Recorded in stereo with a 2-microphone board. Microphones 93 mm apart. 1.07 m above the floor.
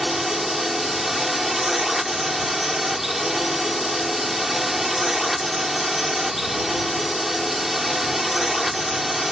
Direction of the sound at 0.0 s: 5° right (ahead or behind).